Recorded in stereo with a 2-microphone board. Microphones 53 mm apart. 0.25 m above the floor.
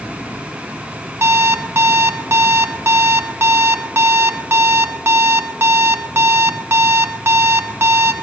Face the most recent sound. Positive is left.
turn(degrees=-45)  # may be behind; listen again after turning